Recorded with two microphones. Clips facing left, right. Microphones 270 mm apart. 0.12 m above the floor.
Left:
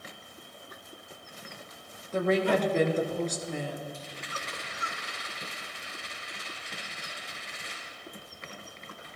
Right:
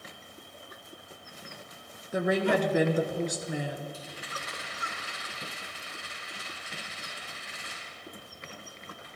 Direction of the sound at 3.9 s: 5° right (ahead or behind).